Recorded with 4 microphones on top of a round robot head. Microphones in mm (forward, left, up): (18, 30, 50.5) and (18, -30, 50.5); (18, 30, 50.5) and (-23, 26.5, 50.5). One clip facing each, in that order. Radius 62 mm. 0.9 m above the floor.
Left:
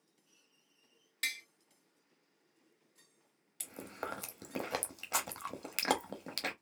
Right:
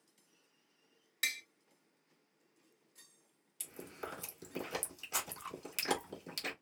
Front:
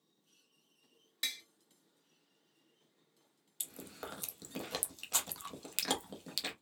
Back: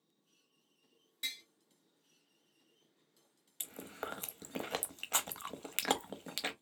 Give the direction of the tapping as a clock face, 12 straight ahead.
12 o'clock.